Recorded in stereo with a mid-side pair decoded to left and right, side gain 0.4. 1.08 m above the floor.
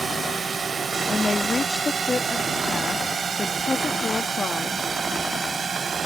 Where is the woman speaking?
30° left.